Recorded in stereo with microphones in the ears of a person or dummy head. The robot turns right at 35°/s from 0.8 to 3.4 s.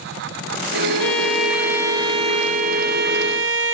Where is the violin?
165° left, 0.5 m; by 3.7 s 110° right, 0.5 m.